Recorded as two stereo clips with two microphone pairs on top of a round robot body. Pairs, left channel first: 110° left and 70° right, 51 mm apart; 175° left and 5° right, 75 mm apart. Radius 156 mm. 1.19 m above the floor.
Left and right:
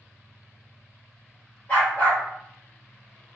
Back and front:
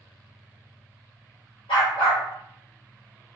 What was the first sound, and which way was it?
A dog barking, 165° left.